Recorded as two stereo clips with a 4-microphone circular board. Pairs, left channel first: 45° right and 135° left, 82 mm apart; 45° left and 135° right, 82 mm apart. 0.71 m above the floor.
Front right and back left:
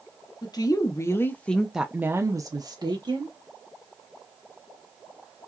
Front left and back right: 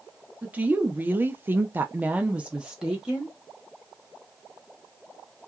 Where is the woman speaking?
65° right, 0.8 m; by 3.4 s 140° left, 0.9 m.